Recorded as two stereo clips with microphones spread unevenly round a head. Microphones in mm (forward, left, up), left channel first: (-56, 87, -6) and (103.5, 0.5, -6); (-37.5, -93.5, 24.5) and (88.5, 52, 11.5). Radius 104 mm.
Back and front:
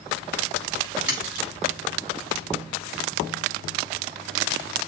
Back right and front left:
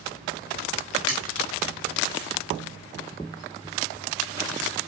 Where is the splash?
55° left, 4 m.